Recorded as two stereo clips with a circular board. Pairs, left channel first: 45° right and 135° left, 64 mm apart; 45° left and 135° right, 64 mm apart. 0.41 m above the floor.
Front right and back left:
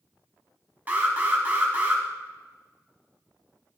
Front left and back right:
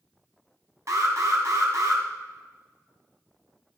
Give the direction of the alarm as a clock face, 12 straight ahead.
5 o'clock.